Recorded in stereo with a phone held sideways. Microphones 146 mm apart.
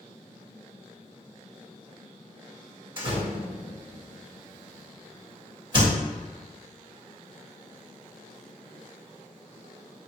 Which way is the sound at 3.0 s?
30° right (ahead or behind).